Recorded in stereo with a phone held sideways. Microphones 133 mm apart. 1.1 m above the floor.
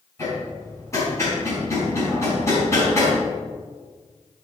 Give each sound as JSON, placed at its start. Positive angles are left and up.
{"t": 0.2, "sound": "hammering", "side_deg": 20, "distance_m": 5.0}